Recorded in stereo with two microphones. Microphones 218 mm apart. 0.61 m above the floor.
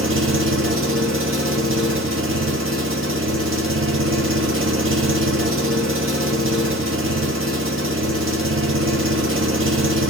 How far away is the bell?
No bell in this recording.